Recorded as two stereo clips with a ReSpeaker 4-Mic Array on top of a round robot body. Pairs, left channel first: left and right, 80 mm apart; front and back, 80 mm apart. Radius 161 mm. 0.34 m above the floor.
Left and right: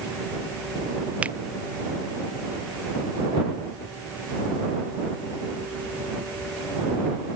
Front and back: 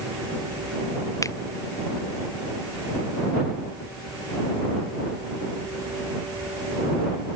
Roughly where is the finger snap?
Ahead.